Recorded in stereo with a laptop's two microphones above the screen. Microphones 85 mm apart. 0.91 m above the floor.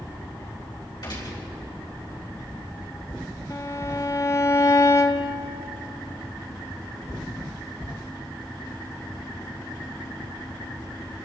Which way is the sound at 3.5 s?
35° left (ahead or behind).